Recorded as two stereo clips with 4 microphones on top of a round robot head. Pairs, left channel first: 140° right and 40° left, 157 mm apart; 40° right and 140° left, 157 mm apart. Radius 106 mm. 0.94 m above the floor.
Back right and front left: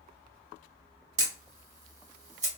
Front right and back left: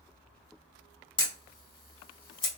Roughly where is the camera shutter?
Ahead.